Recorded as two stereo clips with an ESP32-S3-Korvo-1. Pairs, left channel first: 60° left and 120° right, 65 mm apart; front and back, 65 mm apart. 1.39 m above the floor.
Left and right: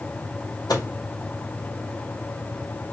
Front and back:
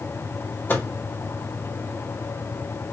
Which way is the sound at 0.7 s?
55° left.